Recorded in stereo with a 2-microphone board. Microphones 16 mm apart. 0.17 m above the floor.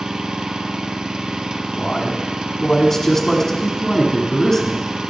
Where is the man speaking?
30° left (ahead or behind), 1.8 m.